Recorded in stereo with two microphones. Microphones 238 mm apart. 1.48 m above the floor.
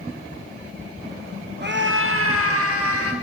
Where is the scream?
45° right (ahead or behind), 1.4 m; by 3.1 s 80° right, 2.5 m.